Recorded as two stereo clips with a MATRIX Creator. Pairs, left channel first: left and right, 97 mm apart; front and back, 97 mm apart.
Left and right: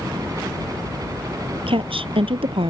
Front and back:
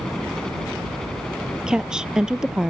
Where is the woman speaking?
100° right.